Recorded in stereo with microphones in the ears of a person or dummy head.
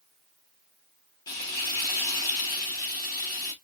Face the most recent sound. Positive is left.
turn(degrees=20)  # may be behind; listen again after turning